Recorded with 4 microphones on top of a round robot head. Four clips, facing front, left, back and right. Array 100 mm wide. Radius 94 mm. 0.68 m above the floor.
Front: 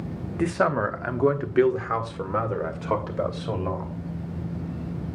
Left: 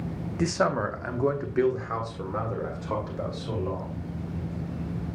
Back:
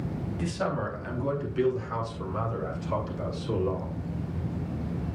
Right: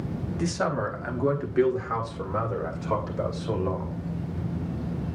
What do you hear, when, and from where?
0.4 s a man speaking: 25° left, 1.1 m; by 3.9 s 10° right, 3 m